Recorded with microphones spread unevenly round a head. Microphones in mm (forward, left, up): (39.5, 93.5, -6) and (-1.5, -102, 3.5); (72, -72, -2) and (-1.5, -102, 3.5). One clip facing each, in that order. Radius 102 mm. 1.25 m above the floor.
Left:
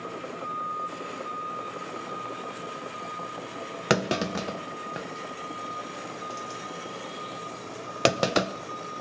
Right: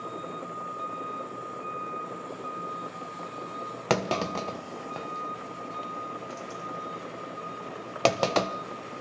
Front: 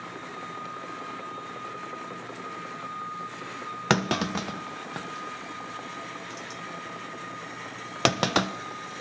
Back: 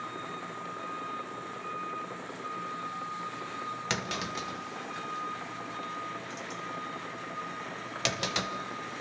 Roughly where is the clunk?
Ahead.